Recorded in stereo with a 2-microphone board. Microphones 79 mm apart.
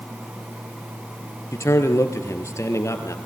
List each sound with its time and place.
1.5 s a man speaking: 40° left (ahead or behind), 3 m